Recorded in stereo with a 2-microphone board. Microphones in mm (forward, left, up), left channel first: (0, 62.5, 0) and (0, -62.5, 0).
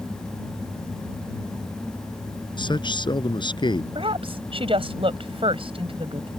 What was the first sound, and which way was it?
A man speaking, 40° left (ahead or behind).